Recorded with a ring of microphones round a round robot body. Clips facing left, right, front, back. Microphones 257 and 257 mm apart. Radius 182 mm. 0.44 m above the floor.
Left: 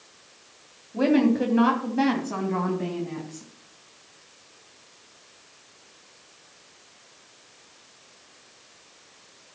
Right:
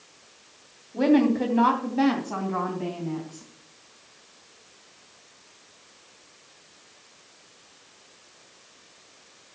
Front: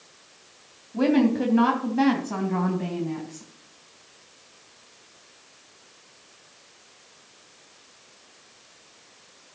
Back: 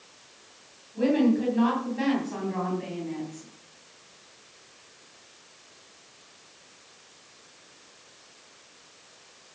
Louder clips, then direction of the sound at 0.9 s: Even, front 2 dB; 5° left.